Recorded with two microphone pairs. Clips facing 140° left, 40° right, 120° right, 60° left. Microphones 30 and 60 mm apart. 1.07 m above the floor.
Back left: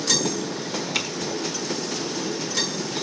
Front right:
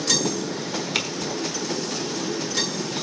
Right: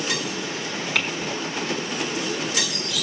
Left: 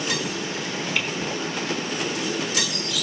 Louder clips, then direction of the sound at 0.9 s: Front right 1 dB, right 3 dB; 110° right.